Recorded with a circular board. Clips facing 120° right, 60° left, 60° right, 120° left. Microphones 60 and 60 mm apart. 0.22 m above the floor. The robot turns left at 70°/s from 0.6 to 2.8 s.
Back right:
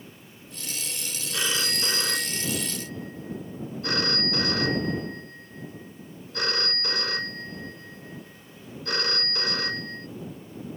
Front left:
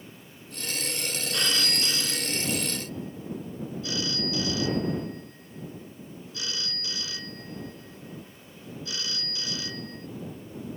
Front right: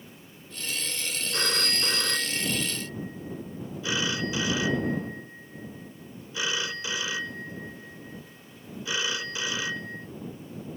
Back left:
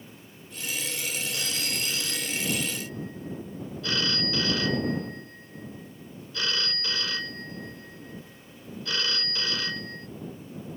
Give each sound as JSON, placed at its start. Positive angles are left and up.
{"t": 1.3, "sound": "a phone ringing", "azimuth_deg": -35}